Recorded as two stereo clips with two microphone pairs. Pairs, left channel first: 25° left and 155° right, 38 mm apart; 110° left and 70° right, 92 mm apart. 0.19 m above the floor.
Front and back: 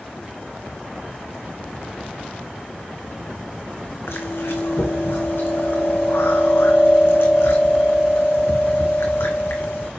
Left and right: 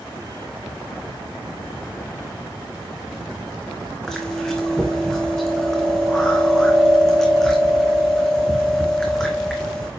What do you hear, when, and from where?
4.1 s chewing: 25° left, 2.5 m